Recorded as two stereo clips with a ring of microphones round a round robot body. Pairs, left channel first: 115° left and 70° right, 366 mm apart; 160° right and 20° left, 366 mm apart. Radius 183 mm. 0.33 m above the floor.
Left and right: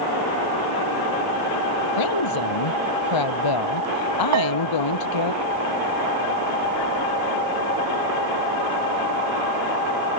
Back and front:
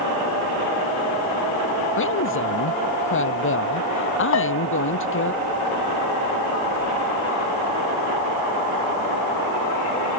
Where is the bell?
110° right.